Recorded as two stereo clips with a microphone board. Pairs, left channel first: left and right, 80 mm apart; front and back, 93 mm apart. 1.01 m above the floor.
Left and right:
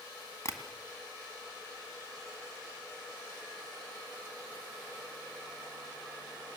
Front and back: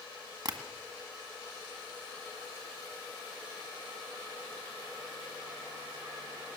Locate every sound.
0.5 s tapping: 140° left, 1.9 m